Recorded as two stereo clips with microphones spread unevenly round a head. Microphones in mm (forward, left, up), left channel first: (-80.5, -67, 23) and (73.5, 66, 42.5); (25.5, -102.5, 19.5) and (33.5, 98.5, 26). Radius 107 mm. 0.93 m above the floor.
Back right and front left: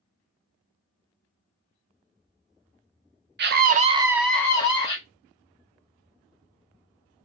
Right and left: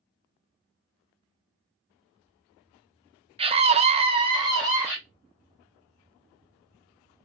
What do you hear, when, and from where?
3.4 s a scream: 35° left, 0.7 m; by 5.0 s 165° left, 1.0 m